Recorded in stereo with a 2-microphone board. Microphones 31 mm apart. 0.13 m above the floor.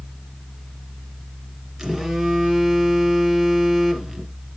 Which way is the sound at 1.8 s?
10° right (ahead or behind).